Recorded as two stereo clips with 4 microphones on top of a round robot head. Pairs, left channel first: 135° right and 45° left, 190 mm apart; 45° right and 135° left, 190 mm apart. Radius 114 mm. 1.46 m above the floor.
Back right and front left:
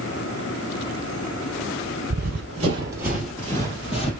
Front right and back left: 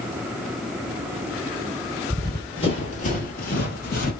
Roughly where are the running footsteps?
Ahead left.